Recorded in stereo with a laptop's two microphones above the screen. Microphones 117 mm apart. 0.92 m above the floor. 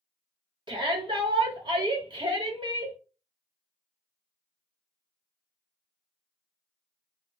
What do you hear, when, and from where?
0.7 s a shout: 40° right (ahead or behind), 1.0 m